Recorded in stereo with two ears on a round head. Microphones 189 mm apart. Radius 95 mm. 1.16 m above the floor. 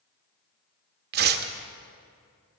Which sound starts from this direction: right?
Tearing paper, at 1.1 s.